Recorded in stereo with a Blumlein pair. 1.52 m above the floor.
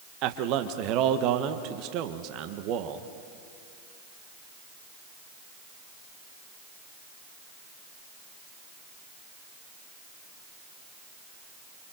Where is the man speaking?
40° right, 1.6 m.